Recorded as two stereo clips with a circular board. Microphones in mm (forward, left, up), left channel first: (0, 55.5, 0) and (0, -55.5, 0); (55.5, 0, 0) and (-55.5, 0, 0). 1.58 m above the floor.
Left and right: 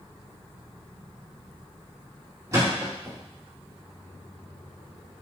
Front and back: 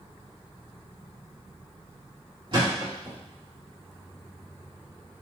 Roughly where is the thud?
Behind right.